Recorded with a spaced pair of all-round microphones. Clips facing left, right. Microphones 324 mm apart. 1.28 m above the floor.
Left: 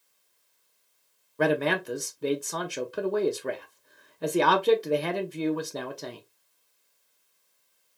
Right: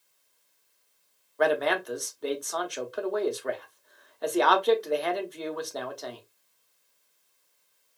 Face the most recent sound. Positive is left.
turn(degrees=35)  # may be behind; listen again after turning